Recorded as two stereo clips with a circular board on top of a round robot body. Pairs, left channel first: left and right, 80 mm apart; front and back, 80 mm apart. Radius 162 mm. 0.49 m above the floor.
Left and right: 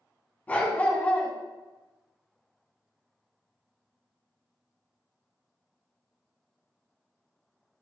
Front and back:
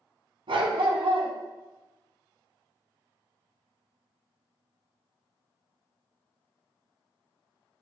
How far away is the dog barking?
About 1.8 m.